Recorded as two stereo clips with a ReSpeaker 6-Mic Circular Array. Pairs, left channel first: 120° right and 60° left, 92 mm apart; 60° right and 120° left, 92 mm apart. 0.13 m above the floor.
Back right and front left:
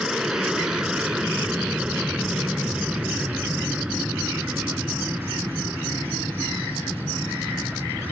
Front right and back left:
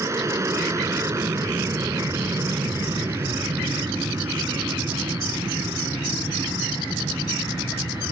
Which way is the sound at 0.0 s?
140° left.